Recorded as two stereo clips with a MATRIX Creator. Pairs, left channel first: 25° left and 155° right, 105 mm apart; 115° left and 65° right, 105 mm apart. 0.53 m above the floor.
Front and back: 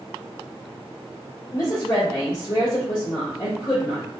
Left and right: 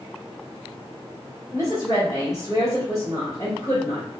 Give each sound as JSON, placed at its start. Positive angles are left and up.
{"t": 1.5, "sound": "a woman speaking", "azimuth_deg": 65, "distance_m": 1.2}